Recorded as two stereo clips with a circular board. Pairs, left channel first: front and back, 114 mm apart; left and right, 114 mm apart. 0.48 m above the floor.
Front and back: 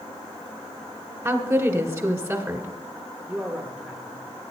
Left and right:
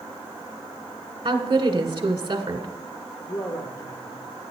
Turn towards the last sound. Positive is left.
turn(degrees=105)